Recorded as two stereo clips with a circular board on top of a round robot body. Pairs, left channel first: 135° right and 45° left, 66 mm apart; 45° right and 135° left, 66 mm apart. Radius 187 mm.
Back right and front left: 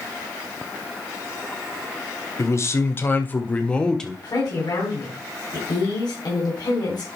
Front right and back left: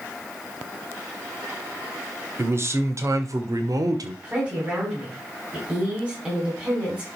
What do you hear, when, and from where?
2.4 s a man speaking: 175° right, 1.8 m; by 4.1 s 140° left, 1.7 m
4.2 s a woman speaking: 155° right, 4.5 m